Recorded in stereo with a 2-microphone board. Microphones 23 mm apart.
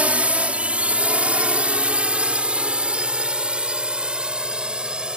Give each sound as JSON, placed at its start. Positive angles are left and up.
{"t": 0.0, "sound": "a drone", "side_deg": -75}